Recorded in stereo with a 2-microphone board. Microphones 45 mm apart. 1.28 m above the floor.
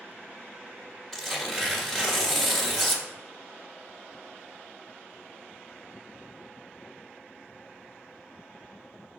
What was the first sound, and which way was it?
Tearing paper, 5° left (ahead or behind).